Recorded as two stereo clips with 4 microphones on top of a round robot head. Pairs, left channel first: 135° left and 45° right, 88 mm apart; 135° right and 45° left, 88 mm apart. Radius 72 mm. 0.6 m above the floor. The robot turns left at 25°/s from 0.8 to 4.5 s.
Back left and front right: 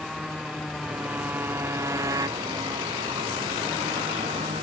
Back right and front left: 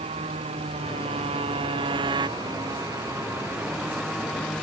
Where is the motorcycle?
45° left; by 4.6 s 50° right.